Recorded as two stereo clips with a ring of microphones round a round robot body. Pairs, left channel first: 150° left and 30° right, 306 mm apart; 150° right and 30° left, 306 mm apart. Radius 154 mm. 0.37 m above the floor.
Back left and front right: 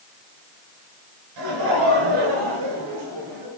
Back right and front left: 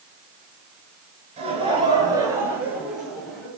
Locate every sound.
1.4 s laughter: 40° right, 7 m; by 3.5 s 60° right, 8 m